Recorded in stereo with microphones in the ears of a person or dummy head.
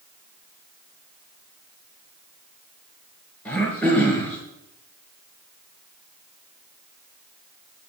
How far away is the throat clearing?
About 3 m.